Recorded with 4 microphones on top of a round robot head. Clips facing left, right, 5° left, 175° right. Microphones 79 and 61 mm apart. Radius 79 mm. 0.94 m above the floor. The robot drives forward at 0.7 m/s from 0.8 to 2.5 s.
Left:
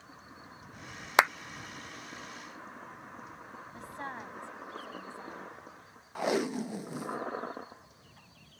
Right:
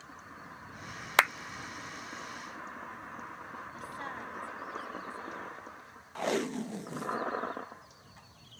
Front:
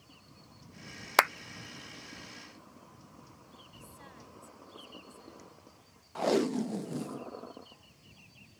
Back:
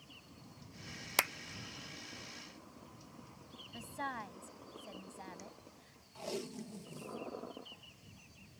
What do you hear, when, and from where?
1.2 s a clap: 20° left; by 1.3 s 25° left
3.7 s a woman speaking: 160° left
6.2 s tape being pulled: 10° left